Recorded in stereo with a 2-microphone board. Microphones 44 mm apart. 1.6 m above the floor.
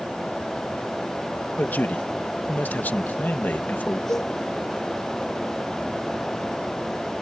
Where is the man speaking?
45° left (ahead or behind).